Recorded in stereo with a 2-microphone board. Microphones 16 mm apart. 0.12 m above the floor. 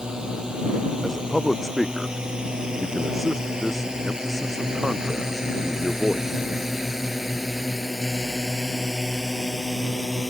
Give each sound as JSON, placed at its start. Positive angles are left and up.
{"t": 0.0, "sound": "a drone", "side_deg": -65}
{"t": 1.0, "sound": "a man speaking", "side_deg": 0}